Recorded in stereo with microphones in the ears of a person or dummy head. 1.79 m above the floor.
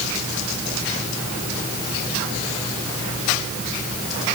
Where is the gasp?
I don't hear a gasp.